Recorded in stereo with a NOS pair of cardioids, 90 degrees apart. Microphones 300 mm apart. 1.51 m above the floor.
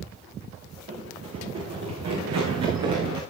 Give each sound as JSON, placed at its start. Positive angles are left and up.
{"t": 0.9, "sound": "running footsteps", "azimuth_deg": -55, "distance_m": 8.0}